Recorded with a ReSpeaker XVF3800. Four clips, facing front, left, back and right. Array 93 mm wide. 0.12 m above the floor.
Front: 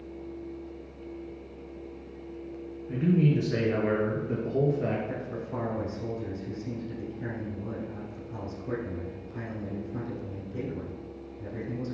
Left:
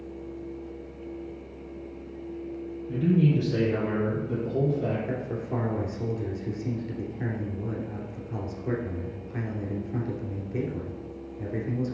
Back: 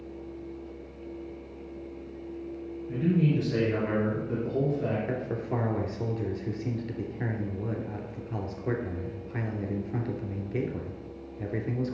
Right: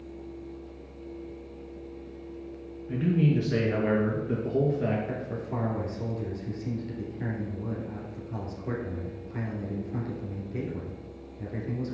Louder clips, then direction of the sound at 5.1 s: Left 3 dB, back 4 dB; 165° left.